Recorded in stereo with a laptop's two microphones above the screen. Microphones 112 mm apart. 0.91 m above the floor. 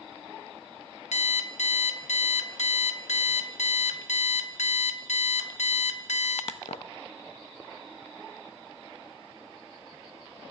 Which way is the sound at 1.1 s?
80° left.